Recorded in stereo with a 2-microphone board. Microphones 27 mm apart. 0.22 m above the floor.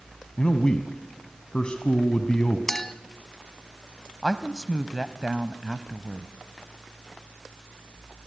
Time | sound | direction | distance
0.4 | a man speaking | 35° left (ahead or behind) | 1.7 m
2.7 | a clink | 15° left (ahead or behind) | 0.9 m
4.2 | a woman speaking | 15° right (ahead or behind) | 1.0 m